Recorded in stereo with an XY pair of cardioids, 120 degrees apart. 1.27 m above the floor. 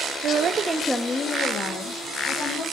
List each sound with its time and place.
0.2 s a woman speaking: 70° right, 0.7 m; by 2.6 s 55° left, 2 m